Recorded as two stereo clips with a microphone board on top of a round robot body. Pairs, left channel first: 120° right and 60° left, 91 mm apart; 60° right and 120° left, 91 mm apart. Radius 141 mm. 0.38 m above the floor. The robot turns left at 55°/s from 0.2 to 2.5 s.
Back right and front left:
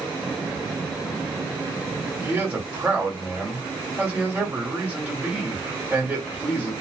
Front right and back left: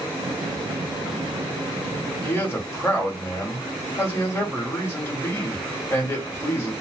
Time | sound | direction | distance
2.2 | a man speaking | 5° left | 1.5 m